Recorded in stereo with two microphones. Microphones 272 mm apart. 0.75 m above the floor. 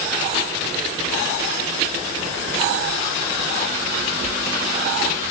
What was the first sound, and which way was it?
Only background noise.